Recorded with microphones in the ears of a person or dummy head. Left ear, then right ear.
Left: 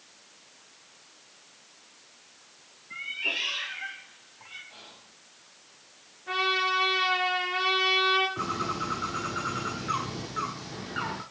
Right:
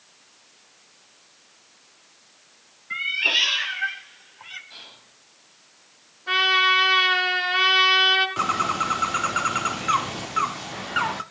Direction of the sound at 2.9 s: 50° right (ahead or behind).